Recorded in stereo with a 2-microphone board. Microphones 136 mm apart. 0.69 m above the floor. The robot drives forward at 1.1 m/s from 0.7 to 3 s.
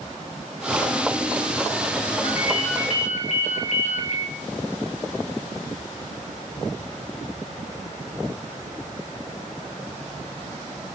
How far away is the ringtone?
About 8.5 m.